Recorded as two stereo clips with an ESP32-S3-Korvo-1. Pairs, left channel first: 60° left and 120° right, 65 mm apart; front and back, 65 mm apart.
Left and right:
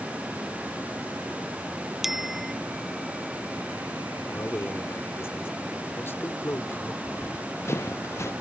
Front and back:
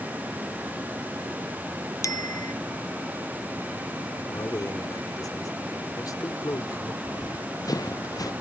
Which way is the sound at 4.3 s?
10° left.